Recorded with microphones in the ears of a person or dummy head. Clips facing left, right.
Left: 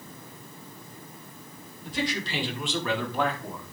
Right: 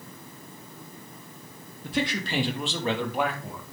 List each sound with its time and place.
1.8 s a man speaking: 55° right (ahead or behind), 2.5 m; by 3.6 s centre (ahead or behind), 2.5 m